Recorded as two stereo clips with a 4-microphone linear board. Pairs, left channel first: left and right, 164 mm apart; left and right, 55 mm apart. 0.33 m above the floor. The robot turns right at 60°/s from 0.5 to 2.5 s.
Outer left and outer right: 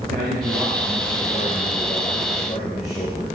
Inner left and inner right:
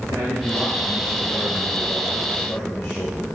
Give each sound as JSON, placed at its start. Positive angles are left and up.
{"t": 0.1, "sound": "a man speaking", "azimuth_deg": -75, "distance_m": 5.5}